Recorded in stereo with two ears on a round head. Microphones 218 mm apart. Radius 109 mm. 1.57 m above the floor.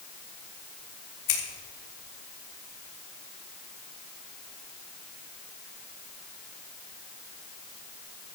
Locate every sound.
1.3 s scissors: 90° left, 4 m